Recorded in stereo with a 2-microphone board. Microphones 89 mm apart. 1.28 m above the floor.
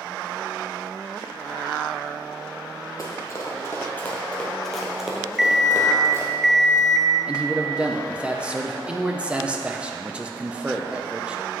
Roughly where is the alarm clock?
Centre.